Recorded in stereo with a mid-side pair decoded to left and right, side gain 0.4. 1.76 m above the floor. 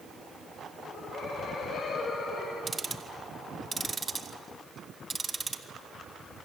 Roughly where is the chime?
No chime in this recording.